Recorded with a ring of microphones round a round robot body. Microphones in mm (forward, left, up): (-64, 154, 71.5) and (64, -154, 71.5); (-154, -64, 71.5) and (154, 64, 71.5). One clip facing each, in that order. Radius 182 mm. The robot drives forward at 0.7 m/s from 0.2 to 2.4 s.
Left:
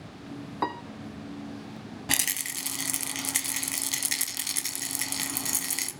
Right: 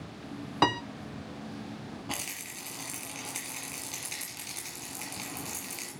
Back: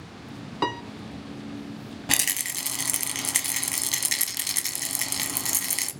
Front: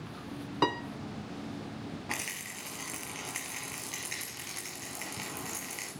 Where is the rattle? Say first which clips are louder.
Left 4 dB, back 7 dB; 165° left, 0.8 m; by 5.9 s 170° left, 1.1 m.